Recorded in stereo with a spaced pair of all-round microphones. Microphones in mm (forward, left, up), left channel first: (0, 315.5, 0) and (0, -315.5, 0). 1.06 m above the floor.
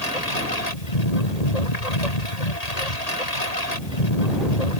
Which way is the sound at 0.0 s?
80° left.